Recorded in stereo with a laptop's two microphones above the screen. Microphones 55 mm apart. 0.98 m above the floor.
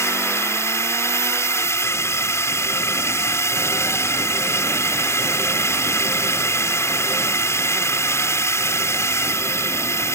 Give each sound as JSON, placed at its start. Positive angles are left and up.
{"t": 0.0, "sound": "a drone", "side_deg": 60}